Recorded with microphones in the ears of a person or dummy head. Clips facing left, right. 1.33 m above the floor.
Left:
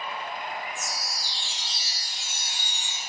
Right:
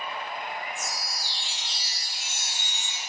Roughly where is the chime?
Centre.